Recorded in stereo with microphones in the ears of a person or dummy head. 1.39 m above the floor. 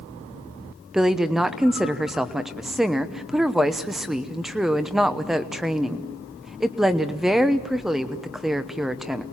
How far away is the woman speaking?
About 0.9 m.